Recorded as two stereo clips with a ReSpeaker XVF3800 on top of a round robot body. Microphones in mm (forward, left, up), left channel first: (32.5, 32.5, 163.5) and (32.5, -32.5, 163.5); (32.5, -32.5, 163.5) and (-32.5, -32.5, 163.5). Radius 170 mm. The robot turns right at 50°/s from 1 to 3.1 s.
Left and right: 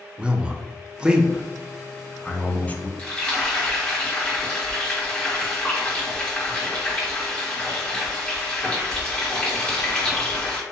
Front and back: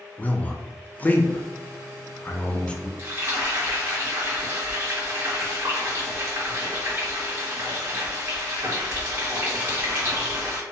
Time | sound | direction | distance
0.2 | a man speaking | 30° right | 0.6 m
3.0 | frying | 155° left | 1.3 m